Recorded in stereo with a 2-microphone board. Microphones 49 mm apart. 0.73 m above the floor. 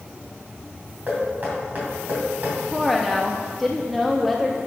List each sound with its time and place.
1.1 s knocking: 35° right (ahead or behind), 3 m
2.7 s a woman speaking: centre (ahead or behind), 0.6 m